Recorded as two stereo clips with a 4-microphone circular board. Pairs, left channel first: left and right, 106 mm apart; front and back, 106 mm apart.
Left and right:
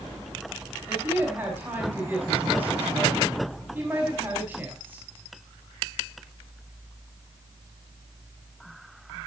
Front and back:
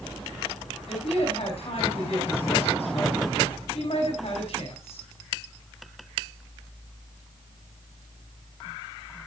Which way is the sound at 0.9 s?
15° right.